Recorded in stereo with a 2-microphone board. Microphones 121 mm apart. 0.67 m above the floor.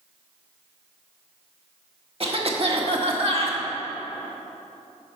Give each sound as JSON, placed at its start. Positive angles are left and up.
{"t": 2.2, "sound": "a cough", "side_deg": -50, "distance_m": 1.4}